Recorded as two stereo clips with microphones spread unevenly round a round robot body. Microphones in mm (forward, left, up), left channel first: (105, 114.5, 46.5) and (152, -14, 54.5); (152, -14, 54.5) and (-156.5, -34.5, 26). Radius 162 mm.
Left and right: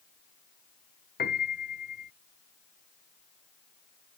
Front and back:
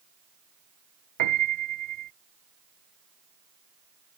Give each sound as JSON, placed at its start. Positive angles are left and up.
{"t": 1.2, "sound": "a piano", "azimuth_deg": 150}